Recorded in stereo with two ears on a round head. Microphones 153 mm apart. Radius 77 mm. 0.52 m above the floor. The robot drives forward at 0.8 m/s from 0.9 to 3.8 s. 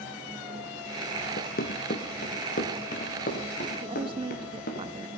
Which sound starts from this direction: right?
A woman speaking, at 3.8 s.